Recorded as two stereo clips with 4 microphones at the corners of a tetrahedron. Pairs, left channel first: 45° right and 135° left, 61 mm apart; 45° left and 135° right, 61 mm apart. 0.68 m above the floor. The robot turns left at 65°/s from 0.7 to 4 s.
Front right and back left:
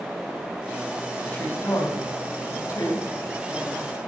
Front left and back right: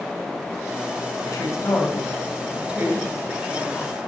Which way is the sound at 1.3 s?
30° left.